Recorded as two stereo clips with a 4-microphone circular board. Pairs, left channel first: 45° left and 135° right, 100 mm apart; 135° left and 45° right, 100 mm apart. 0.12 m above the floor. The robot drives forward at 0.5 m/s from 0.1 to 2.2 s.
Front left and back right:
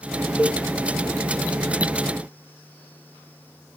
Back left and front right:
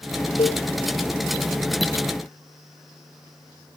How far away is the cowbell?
About 1.1 m.